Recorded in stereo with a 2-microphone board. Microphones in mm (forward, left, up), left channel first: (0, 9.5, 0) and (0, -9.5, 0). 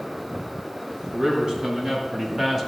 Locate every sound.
1.1 s a man speaking: 40° right (ahead or behind), 3 m; by 2.7 s 10° right (ahead or behind), 1.9 m